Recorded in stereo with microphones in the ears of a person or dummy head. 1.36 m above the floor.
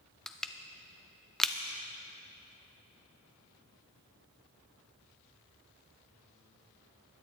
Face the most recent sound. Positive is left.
turn(degrees=5)  # may be behind; listen again after turning